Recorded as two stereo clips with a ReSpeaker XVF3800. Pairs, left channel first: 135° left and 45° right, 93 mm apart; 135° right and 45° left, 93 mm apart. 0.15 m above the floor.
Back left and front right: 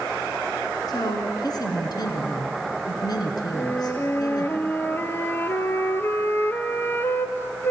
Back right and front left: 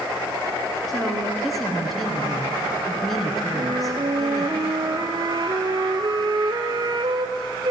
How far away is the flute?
About 0.6 m.